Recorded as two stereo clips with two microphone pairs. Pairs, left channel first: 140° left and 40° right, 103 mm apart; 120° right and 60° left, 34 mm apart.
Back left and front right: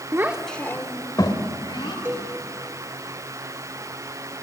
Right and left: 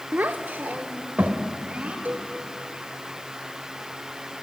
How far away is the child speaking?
About 0.8 m.